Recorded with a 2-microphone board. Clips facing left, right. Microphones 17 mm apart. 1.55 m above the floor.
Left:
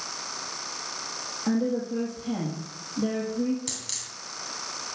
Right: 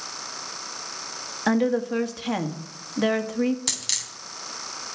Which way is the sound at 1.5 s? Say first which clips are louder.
Right 5 dB; 70° right (ahead or behind).